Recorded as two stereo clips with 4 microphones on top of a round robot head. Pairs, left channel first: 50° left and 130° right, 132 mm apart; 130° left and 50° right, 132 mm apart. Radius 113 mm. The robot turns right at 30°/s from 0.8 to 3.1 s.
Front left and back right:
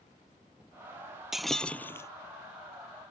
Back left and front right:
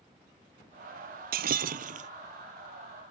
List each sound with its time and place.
1.3 s breaking glass: 40° right; by 2.1 s 20° right